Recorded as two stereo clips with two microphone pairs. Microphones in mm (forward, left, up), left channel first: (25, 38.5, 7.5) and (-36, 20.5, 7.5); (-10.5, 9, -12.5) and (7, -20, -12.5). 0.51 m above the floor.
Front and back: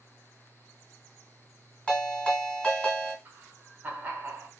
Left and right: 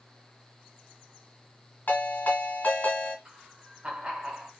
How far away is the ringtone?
About 1.7 m.